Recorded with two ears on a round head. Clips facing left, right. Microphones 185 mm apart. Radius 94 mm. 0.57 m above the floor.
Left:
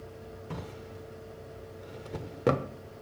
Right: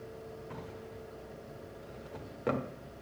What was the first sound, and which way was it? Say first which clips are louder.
A drawer: left 3 dB; 50° left (ahead or behind).